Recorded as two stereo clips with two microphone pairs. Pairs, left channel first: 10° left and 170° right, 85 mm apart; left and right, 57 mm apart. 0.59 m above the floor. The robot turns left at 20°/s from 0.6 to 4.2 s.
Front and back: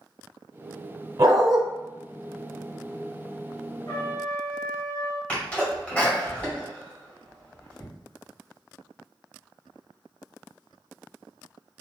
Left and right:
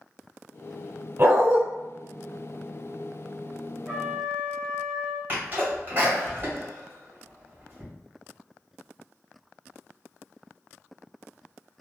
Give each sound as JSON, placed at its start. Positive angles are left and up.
{"t": 1.2, "sound": "a dog barking", "azimuth_deg": -140, "distance_m": 0.9}
{"t": 3.9, "sound": "a trumpet", "azimuth_deg": 0, "distance_m": 1.7}
{"t": 5.3, "sound": "a sneeze", "azimuth_deg": -55, "distance_m": 1.6}